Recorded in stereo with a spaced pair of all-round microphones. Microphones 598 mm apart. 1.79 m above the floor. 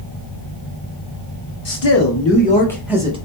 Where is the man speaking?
65° left (ahead or behind), 0.6 m; by 3.2 s 10° right (ahead or behind), 1.0 m.